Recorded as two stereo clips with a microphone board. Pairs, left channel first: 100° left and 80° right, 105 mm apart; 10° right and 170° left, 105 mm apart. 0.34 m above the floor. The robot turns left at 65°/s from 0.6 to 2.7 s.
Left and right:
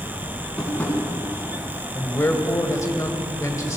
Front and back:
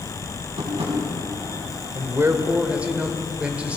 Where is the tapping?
170° right, 3.5 m; by 1.0 s 165° left, 3.5 m.